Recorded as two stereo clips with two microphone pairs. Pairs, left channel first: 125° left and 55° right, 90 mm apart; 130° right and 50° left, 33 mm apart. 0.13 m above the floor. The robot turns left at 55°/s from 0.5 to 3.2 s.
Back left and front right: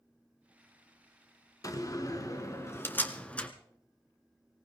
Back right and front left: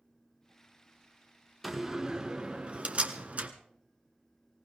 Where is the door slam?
140° left, 1.4 m; by 3.5 s 55° left, 1.4 m.